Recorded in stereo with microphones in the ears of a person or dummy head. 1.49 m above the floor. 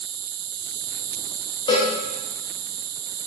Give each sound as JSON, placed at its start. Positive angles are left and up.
{"t": 0.0, "sound": "an insect", "side_deg": -65, "distance_m": 0.7}
{"t": 1.7, "sound": "a cowbell", "side_deg": 20, "distance_m": 3.0}